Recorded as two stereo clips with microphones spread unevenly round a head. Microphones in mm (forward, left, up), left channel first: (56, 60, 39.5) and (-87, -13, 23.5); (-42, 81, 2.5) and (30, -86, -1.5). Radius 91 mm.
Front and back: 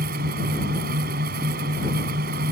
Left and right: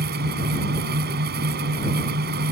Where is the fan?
105° right.